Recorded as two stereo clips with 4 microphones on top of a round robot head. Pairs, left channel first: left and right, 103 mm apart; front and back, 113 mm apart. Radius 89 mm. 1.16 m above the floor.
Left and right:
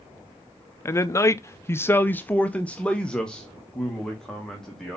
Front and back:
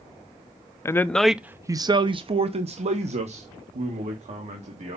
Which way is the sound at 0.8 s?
50° left.